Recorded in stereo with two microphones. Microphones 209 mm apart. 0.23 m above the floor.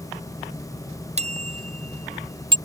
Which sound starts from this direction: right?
A bicycle bell, at 1.2 s.